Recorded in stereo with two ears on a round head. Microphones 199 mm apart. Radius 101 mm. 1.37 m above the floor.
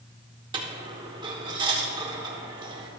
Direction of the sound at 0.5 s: 20° right (ahead or behind).